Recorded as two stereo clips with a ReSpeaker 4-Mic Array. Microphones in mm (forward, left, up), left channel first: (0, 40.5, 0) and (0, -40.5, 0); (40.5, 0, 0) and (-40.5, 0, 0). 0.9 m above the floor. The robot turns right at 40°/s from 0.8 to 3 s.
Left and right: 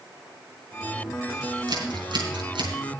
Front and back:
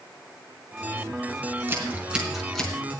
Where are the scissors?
125° right, 4 m; by 2.7 s 85° right, 4 m.